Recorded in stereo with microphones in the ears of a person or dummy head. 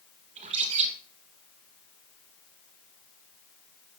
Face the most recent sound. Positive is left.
turn(degrees=-35)  # may be behind; listen again after turning